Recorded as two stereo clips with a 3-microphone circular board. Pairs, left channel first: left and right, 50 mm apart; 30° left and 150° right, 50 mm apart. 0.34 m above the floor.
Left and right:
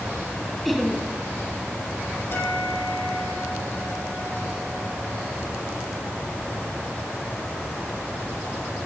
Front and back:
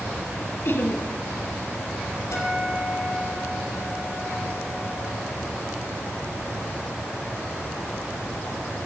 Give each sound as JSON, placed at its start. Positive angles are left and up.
{"t": 0.7, "sound": "laughter", "azimuth_deg": 0, "distance_m": 3.5}
{"t": 2.3, "sound": "a guitar", "azimuth_deg": 50, "distance_m": 10.0}